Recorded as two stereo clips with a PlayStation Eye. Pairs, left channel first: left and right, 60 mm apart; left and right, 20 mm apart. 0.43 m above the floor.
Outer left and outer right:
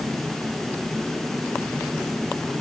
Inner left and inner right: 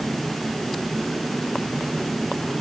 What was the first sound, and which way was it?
Only background noise.